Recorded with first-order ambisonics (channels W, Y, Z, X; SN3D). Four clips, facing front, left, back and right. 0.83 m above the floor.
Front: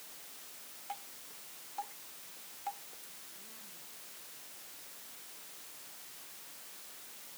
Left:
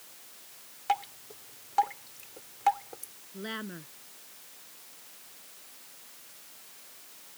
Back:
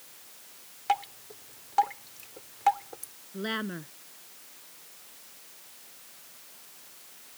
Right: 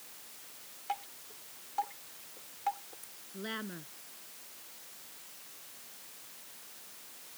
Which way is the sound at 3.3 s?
175° left.